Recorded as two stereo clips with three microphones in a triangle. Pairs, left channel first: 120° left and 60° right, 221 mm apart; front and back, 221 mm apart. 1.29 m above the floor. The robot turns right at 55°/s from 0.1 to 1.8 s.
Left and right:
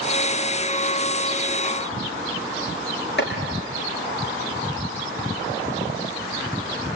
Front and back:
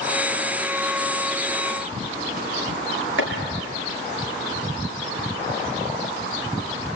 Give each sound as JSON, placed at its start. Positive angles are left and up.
{"t": 3.2, "sound": "chopping", "azimuth_deg": 155, "distance_m": 4.5}